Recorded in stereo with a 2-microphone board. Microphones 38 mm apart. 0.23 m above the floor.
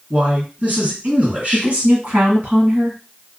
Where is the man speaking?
40° right (ahead or behind), 2 m.